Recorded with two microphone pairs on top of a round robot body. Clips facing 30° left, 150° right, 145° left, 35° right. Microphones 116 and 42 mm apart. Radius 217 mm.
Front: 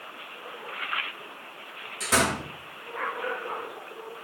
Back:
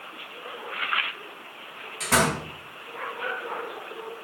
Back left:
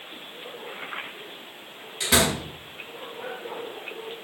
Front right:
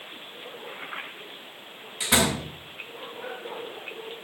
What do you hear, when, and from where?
2.0 s a door slam: 115° right, 5.5 m